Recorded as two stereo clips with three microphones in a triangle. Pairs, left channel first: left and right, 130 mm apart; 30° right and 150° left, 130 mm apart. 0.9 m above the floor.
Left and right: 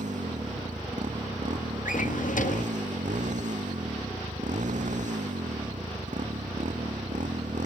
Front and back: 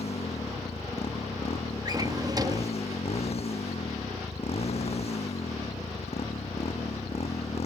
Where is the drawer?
90° left.